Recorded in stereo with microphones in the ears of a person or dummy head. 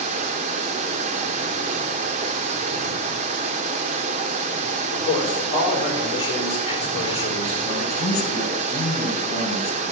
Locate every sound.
0.0 s running water: 40° right (ahead or behind), 1.2 m
4.9 s a man speaking: 35° left (ahead or behind), 5 m
7.6 s a man speaking: 45° left (ahead or behind), 5 m